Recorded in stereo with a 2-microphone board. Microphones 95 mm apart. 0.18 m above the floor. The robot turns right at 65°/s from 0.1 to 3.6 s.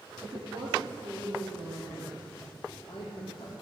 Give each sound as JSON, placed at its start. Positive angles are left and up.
{"t": 0.2, "sound": "a woman speaking", "azimuth_deg": -130, "distance_m": 4.5}